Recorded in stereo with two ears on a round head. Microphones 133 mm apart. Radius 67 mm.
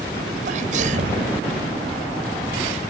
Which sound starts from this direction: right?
A sneeze, at 0.5 s.